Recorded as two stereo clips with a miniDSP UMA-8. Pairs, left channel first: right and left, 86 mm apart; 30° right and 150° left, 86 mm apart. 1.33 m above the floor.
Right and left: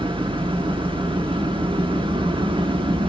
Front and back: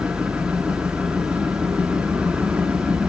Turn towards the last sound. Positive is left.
turn(degrees=75)